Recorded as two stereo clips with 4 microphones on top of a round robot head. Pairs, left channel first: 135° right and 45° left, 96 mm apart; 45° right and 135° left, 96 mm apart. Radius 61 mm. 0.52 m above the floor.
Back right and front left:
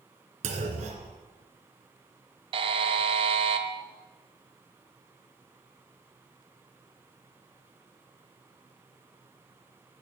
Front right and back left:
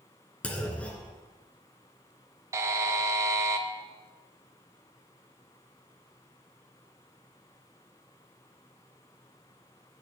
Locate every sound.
0.4 s a clunk: 35° left, 1.9 m
2.5 s a buzzer: 80° left, 1.0 m